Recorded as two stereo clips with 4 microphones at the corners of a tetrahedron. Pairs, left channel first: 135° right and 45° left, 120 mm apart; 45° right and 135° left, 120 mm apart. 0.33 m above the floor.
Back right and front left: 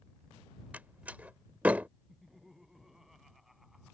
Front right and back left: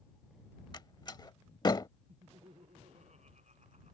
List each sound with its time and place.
0.7 s a door slam: 25° right
2.1 s laughter: 135° left